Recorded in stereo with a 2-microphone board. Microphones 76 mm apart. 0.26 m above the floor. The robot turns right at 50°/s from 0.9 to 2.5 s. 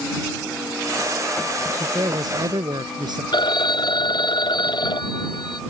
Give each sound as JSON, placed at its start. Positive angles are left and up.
{"t": 1.8, "sound": "a man speaking", "azimuth_deg": -130}
{"t": 3.3, "sound": "a phone ringing", "side_deg": 75}